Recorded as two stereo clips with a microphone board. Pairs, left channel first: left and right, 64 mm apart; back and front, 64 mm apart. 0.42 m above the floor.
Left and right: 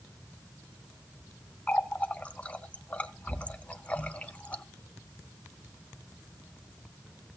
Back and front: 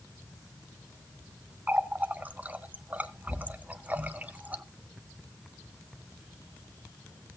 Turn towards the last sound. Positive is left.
turn(degrees=40)